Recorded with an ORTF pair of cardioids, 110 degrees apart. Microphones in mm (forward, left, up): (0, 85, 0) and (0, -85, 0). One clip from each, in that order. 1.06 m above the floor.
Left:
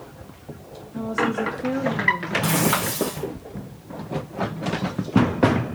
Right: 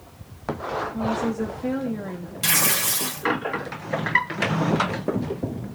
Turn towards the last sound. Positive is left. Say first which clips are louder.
# right 3 dB
turn(degrees=-50)